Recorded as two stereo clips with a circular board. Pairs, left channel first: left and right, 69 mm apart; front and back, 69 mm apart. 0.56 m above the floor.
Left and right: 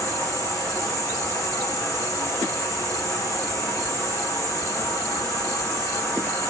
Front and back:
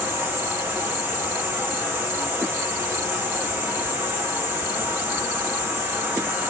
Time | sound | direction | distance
0.0 | an insect | 125° left | 2 m